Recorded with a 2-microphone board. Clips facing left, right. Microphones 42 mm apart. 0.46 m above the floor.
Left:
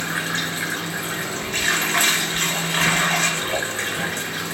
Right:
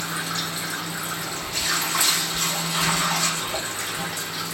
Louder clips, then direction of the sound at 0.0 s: Left 4 dB; 60° left (ahead or behind).